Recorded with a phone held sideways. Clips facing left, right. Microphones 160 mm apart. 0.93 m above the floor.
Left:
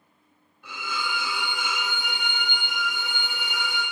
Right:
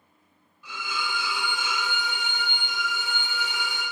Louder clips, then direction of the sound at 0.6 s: Left 1 dB; 55° left (ahead or behind).